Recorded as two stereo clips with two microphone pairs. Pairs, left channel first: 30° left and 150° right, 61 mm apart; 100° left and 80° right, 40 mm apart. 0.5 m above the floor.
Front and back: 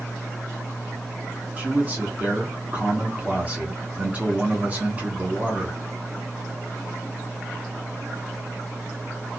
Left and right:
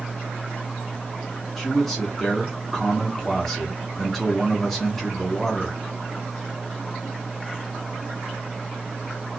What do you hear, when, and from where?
1.6 s a man speaking: straight behind, 1.1 m